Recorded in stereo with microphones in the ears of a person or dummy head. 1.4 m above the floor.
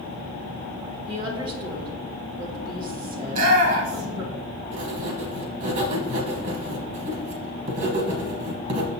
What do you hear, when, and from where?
1.1 s a woman speaking: 30° right (ahead or behind), 1.6 m
3.2 s a shout: 50° right (ahead or behind), 1.4 m
4.7 s writing: 45° right (ahead or behind), 1.1 m